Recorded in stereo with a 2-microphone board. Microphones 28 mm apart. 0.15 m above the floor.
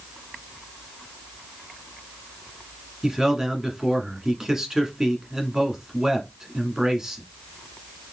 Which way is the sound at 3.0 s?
20° right (ahead or behind).